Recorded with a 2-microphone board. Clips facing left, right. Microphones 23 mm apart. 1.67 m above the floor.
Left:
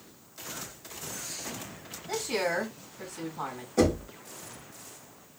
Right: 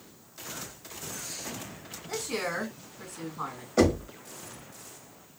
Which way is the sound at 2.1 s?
30° left (ahead or behind).